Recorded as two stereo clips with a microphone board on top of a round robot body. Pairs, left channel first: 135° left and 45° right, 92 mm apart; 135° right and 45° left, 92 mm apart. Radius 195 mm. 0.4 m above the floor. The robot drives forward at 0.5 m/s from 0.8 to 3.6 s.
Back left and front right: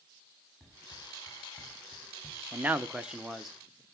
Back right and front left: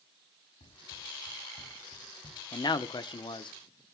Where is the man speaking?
110° right, 1.1 m; by 3.5 s 135° right, 1.4 m.